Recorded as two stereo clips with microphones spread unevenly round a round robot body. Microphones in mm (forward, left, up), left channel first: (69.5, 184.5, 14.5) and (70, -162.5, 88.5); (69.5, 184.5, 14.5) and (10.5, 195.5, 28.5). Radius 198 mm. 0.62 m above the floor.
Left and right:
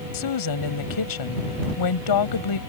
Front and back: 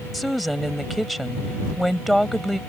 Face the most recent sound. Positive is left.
turn(degrees=80)